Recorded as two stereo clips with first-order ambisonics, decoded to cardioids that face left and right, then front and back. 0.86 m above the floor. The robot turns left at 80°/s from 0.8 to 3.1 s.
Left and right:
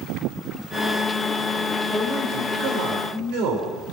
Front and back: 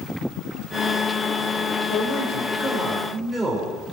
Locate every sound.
1.9 s a man speaking: straight ahead, 4 m; by 3.8 s 95° right, 4 m